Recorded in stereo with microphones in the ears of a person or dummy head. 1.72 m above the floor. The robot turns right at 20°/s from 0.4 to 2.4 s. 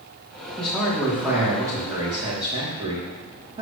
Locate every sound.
0.6 s a man speaking: 170° left, 3 m; by 3.6 s 155° right, 3 m